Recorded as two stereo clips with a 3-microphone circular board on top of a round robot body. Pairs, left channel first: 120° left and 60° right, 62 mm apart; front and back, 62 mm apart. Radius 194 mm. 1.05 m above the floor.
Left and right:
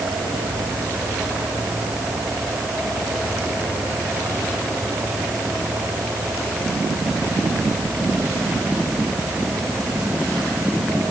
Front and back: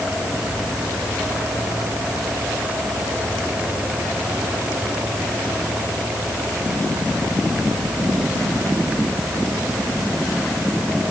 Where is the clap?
No clap in this recording.